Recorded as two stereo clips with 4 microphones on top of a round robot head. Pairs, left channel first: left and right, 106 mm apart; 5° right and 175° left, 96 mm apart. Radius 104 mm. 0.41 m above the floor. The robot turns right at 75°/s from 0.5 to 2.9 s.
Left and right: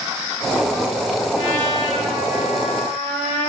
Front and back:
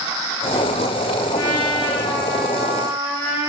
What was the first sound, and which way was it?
A trumpet, straight ahead.